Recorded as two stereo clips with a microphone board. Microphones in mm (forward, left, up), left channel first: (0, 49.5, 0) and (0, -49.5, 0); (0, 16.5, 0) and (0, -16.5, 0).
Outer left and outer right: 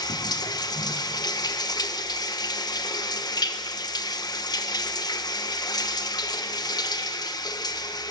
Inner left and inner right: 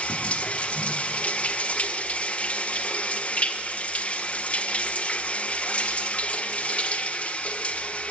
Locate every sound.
0.0 s running water: 40° left (ahead or behind), 1.2 m